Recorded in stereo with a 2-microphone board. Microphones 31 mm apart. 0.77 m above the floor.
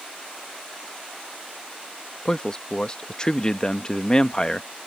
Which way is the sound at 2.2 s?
25° left (ahead or behind).